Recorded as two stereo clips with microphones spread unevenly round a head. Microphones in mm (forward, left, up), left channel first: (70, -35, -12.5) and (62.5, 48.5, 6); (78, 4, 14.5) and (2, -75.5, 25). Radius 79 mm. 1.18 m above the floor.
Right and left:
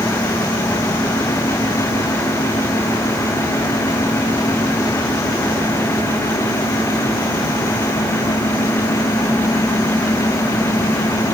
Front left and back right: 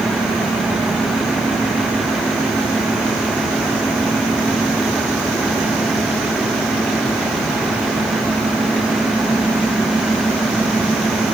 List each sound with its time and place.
Only background noise.